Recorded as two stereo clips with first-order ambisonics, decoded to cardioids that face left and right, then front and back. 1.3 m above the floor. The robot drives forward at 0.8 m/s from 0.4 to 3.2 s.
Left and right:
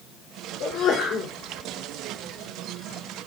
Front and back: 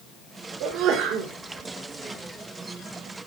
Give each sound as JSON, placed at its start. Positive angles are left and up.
{"t": 0.6, "sound": "a sneeze", "azimuth_deg": 140, "distance_m": 3.5}